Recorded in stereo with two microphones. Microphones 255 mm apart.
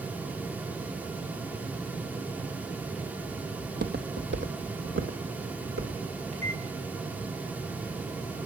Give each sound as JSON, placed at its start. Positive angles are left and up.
{"t": 3.6, "sound": "footsteps", "side_deg": -40, "distance_m": 2.0}
{"t": 6.3, "sound": "a microwave", "side_deg": -30, "distance_m": 5.5}